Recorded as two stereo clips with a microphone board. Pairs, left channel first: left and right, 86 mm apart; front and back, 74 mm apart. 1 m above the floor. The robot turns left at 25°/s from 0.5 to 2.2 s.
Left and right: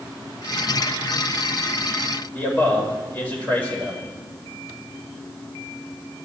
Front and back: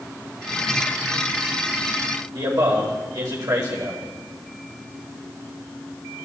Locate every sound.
2.3 s a man speaking: 160° left, 4 m